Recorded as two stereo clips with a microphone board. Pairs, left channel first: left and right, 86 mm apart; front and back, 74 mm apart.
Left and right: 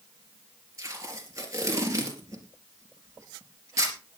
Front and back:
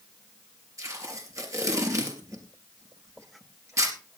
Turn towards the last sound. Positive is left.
turn(degrees=-140)